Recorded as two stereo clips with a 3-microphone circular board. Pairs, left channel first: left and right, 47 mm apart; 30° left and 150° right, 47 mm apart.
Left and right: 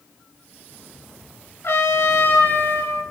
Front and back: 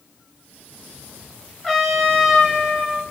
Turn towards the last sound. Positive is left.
turn(degrees=115)